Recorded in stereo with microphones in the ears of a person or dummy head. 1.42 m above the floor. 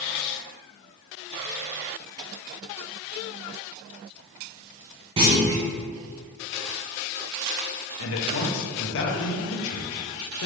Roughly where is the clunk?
Right.